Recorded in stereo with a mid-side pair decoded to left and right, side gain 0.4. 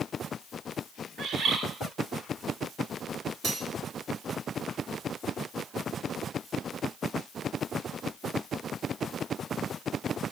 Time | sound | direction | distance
1.2 | a bird | 70° right | 3.5 m
3.4 | cutlery clinking | 70° right | 3.5 m